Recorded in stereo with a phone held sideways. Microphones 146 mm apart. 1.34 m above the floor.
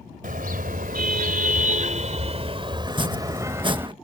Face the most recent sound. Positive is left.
turn(degrees=-35)  # may be behind; listen again after turning